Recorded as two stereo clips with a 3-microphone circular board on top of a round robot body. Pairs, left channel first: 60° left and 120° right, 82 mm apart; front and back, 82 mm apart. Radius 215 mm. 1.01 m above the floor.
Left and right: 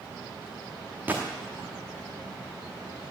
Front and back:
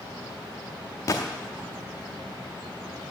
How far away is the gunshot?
About 0.7 m.